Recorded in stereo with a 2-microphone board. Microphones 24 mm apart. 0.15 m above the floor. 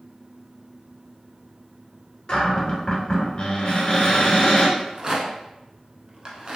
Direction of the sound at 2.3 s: 40° left (ahead or behind).